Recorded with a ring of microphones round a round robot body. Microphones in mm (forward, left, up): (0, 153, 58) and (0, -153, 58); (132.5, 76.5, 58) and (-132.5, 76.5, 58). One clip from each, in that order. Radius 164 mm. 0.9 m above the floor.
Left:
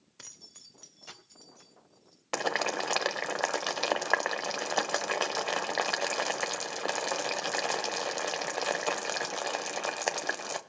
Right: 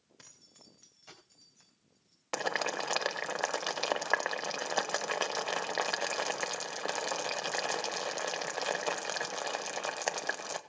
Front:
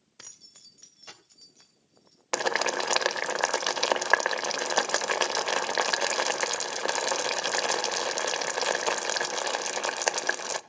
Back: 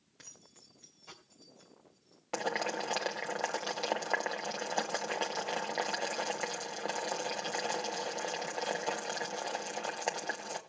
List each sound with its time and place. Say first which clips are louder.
0.2 s keys jangling: left 8 dB, front 6 dB; 20° left, 2 m; by 2.2 s 15° left, 5 m
2.3 s boiling: left 3 dB, front 7 dB; straight ahead, 0.9 m